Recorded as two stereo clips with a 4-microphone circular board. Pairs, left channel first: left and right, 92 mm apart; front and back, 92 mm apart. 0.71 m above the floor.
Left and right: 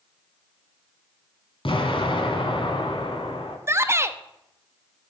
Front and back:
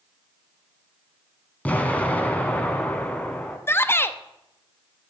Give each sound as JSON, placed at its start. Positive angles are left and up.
{"t": 1.6, "sound": "an explosion", "azimuth_deg": 75, "distance_m": 1.2}
{"t": 3.7, "sound": "a shout", "azimuth_deg": -45, "distance_m": 0.6}